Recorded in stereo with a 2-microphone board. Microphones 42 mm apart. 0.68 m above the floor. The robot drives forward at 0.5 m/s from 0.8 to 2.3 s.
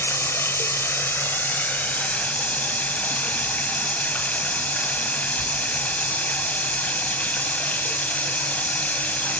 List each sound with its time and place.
0.0 s running water: 60° left (ahead or behind), 0.9 m; by 9.4 s 35° left (ahead or behind), 1.4 m